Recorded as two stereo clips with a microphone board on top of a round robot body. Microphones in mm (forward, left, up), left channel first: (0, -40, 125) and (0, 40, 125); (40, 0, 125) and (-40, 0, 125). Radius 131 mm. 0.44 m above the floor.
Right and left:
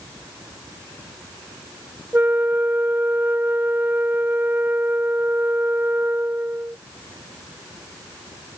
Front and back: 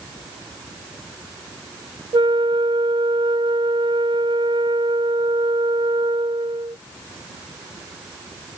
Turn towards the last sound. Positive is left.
turn(degrees=160)